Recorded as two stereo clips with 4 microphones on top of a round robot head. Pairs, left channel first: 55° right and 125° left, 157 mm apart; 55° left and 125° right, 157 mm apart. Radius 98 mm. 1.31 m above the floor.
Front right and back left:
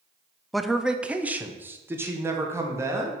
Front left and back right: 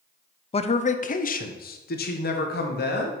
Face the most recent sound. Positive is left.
turn(degrees=55)